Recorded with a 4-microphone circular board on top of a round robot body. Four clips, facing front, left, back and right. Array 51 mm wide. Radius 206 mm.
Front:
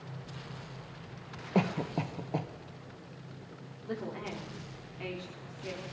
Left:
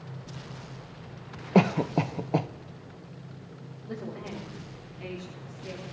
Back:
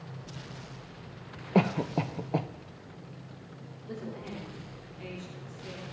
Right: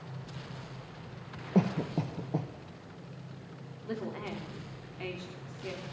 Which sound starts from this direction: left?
A cough, at 1.6 s.